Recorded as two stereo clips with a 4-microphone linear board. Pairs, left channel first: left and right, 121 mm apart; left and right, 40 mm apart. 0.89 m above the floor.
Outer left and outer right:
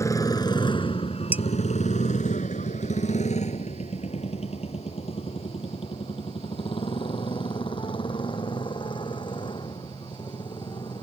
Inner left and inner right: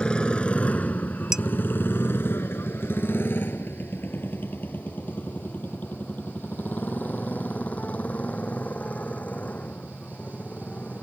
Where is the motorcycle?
25° left (ahead or behind); by 11.0 s 40° left (ahead or behind).